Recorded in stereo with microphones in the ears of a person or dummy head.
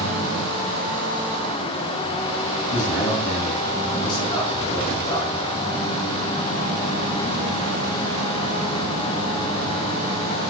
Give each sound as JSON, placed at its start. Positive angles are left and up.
{"t": 2.7, "sound": "a man speaking", "side_deg": 50, "distance_m": 3.5}